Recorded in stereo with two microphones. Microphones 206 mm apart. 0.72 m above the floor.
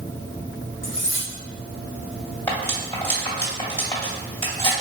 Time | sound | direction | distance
0.8 | cutlery clinking | 70° left (ahead or behind) | 1.4 m
2.5 | cutlery clinking | 10° left (ahead or behind) | 1.9 m